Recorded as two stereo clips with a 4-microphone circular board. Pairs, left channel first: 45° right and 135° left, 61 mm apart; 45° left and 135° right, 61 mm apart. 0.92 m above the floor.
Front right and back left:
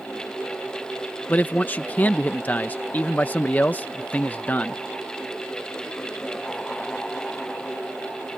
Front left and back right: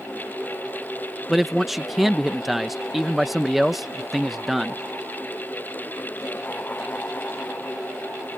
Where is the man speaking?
55° right.